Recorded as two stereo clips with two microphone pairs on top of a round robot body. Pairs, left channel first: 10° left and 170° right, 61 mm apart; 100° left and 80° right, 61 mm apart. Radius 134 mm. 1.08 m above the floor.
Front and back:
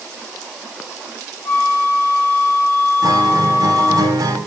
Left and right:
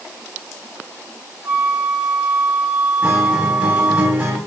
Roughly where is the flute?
Ahead right.